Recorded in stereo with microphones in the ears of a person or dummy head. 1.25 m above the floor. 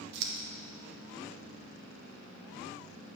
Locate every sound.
0.1 s scissors: 60° right (ahead or behind), 1.5 m